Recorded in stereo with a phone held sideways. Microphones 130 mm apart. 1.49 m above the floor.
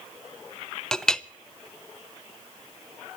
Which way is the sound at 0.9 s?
5° left (ahead or behind).